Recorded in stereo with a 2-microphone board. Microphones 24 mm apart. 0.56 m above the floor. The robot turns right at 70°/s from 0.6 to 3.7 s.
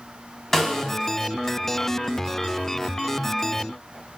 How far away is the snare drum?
About 0.7 m.